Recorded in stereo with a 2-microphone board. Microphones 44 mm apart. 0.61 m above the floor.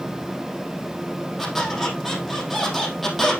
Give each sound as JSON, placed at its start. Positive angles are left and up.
{"t": 1.4, "sound": "a squeak", "side_deg": 0, "distance_m": 3.5}